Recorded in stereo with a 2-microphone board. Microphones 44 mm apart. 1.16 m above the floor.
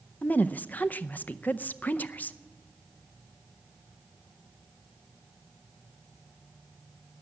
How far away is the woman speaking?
About 0.6 m.